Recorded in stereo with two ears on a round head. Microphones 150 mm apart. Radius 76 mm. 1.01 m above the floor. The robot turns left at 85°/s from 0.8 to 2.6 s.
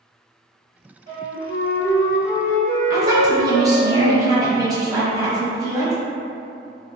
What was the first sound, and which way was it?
A flute, 150° left.